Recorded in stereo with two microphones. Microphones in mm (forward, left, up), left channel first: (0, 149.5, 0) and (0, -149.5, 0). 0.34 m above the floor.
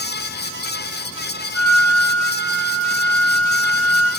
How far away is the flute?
About 6 m.